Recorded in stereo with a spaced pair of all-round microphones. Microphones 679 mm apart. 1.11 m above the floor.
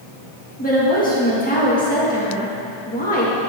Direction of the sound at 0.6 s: 10° left (ahead or behind).